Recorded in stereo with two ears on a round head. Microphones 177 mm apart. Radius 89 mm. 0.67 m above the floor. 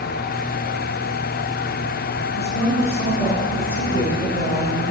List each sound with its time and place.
2.3 s a woman speaking: 15° left (ahead or behind), 2.5 m